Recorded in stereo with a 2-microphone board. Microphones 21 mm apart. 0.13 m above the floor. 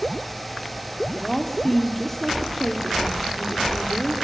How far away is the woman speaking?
About 3.5 m.